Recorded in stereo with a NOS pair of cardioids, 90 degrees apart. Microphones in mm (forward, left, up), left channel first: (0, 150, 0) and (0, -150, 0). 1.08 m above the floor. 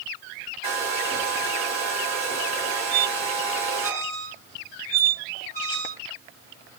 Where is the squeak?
55° right, 0.9 m.